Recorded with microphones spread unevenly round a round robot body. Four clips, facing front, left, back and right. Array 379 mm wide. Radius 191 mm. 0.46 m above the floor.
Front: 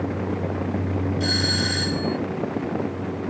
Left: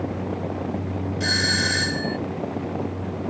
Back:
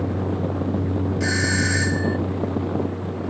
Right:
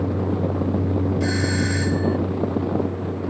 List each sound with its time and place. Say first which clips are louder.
1.2 s a doorbell: right 3 dB, back 2 dB; 120° left